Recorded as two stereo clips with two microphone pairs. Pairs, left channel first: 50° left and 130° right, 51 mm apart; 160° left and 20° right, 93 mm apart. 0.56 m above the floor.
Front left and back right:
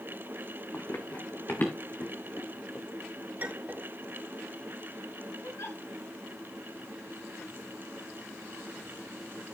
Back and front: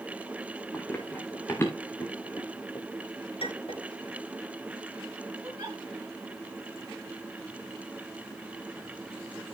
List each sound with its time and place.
0.7 s running footsteps: 85° left, 3 m; by 2.9 s 110° left, 3.5 m
3.4 s a clink: 170° left, 5.5 m
5.4 s a giggle: 40° left, 5 m